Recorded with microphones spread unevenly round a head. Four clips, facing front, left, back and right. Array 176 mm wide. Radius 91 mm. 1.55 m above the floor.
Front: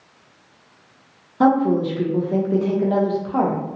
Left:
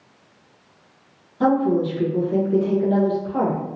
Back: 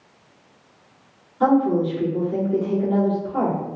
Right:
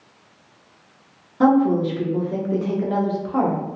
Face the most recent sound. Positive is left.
turn(degrees=-20)